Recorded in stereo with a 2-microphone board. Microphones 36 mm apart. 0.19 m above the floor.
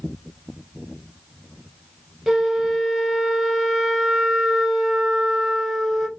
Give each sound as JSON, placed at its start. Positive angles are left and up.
{"t": 2.3, "sound": "a flute", "side_deg": -10, "distance_m": 0.7}